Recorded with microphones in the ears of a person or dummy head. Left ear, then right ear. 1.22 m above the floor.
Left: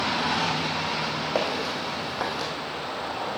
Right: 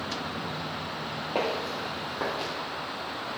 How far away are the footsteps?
About 2.5 m.